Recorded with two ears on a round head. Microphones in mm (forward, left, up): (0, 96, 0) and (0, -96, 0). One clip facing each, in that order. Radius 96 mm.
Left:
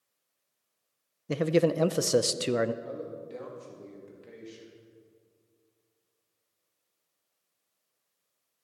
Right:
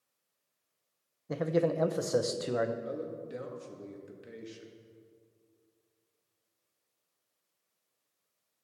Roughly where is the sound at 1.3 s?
Left.